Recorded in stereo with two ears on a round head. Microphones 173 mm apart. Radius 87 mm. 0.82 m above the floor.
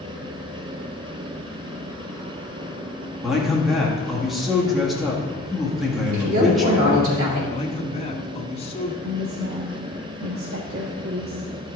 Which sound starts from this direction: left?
A man speaking, at 7.5 s.